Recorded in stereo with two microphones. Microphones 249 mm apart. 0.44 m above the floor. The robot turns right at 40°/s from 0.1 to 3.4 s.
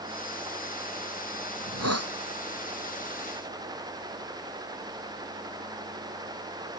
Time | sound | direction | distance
1.6 | a hiss | 85° right | ?